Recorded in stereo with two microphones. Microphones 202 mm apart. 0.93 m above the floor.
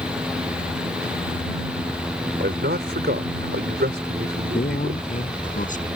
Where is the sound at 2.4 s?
55° right (ahead or behind).